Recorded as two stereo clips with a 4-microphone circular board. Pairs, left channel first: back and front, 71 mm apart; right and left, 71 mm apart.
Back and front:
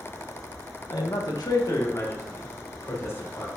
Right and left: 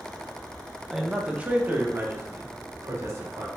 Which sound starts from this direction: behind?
A man speaking, at 0.9 s.